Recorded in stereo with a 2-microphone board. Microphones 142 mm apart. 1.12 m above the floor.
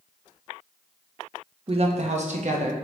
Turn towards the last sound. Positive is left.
turn(degrees=-55)  # may be behind; listen again after turning